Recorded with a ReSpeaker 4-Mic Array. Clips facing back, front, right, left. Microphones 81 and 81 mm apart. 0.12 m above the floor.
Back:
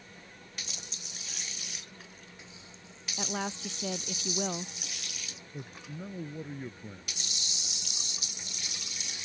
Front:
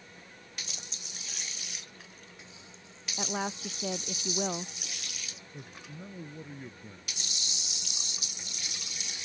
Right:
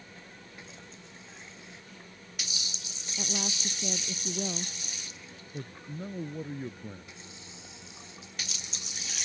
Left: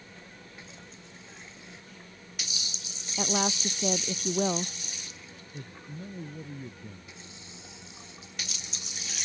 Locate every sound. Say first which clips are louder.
3.2 s a woman speaking: front 1 dB, left 8 dB; 80° left
5.5 s a man speaking: back 4 dB, right 3 dB; 110° right